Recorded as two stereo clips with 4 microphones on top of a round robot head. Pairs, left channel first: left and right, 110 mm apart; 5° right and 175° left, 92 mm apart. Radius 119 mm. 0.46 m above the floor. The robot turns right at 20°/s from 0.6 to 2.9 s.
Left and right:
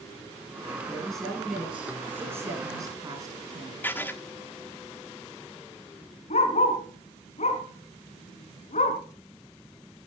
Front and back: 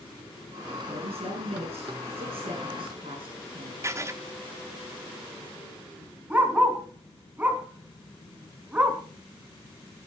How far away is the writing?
About 1.4 m.